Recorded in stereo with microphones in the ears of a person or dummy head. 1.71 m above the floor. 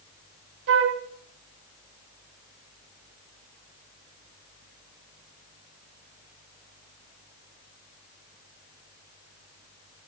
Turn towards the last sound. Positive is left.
turn(degrees=-55)  # may be behind; listen again after turning